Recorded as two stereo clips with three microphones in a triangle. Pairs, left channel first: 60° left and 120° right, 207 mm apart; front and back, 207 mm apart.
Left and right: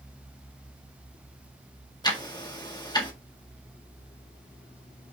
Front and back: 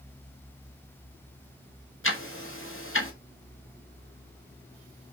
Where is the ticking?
10° right, 1.8 m.